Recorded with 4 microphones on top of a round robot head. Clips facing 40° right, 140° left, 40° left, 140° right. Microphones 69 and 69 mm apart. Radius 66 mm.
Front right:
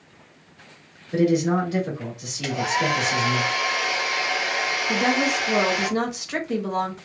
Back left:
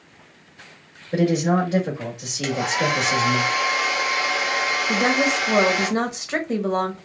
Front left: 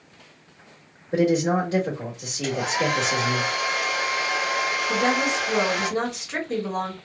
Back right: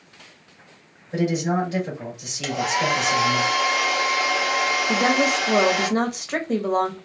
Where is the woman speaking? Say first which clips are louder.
Back left 1 dB, back right 2 dB; 165° right, 1.3 m.